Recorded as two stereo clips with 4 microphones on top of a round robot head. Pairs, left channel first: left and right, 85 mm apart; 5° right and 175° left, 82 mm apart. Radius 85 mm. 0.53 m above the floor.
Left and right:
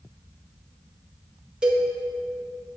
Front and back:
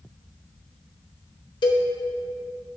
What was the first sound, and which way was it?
A cowbell, 10° right.